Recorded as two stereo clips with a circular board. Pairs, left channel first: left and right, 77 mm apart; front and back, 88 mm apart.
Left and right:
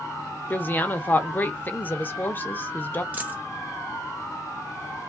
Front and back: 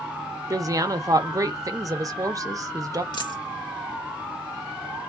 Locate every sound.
0.5 s a woman speaking: 145° left, 0.6 m
3.1 s a dropped coin: 25° right, 1.0 m